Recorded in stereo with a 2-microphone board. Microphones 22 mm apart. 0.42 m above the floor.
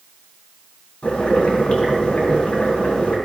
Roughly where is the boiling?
Left.